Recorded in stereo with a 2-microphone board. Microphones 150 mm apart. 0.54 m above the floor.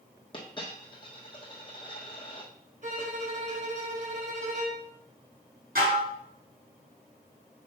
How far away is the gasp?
No gasp in this recording.